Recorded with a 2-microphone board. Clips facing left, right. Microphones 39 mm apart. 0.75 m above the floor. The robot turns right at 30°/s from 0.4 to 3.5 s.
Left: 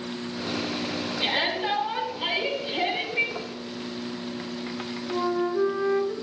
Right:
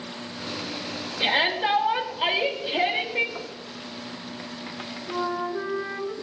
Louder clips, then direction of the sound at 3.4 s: Left 2 dB; 10° right (ahead or behind).